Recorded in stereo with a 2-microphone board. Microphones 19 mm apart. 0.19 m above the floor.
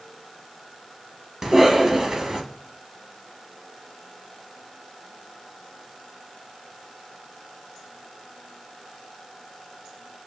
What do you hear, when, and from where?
1.4 s a cough: 25° right (ahead or behind), 1.1 m